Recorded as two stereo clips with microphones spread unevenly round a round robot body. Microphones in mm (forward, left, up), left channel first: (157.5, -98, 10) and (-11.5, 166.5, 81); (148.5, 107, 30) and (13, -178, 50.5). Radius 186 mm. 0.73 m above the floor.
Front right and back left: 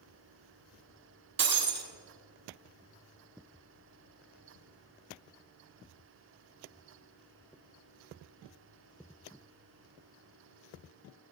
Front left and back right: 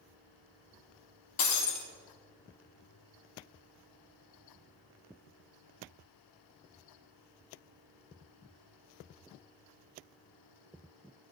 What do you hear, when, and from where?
1.4 s breaking glass: 75° left, 1.8 m